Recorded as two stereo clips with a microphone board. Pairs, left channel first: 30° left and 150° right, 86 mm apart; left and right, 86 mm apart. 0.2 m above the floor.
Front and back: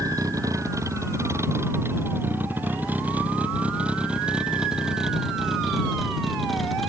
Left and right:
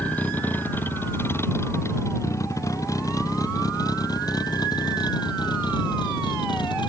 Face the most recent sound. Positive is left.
turn(degrees=120)